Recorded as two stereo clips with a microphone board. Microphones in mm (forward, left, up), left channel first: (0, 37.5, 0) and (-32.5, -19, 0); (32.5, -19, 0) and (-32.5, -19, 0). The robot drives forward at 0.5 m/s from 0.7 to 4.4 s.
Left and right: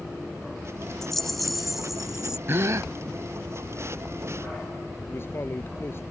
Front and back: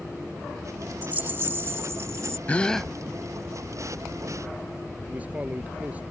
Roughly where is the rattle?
Behind left.